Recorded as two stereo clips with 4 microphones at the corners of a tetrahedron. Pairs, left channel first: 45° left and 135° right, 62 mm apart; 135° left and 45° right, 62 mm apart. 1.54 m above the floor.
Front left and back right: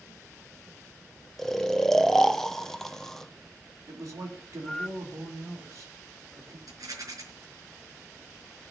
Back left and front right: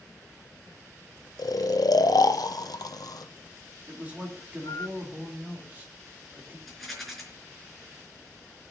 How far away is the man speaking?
About 3.5 m.